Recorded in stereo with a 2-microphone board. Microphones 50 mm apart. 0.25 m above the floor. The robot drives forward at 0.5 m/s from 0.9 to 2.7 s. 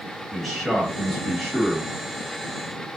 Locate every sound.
0.3 s a man speaking: centre (ahead or behind), 1.3 m